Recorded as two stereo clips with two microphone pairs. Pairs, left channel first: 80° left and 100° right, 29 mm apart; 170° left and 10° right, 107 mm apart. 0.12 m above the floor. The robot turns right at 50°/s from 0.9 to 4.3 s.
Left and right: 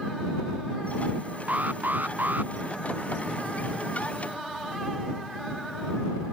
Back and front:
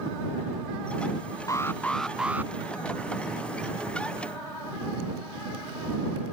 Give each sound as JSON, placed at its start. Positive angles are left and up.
{"t": 1.5, "sound": "an alarm", "azimuth_deg": -130}